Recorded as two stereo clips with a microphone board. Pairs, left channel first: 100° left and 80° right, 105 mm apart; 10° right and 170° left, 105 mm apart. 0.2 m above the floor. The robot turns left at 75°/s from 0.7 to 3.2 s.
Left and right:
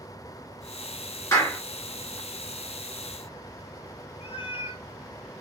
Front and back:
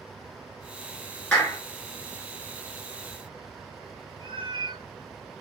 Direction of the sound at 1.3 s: 55° left.